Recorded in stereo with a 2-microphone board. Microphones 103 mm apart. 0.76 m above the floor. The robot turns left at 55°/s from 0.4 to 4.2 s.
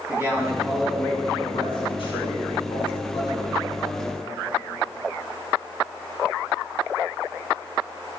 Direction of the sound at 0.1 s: 155° right.